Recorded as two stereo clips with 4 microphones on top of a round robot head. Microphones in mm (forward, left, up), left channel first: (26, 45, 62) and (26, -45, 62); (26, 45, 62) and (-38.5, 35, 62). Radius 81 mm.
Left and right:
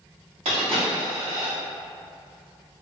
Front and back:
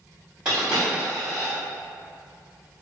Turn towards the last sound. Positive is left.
turn(degrees=-95)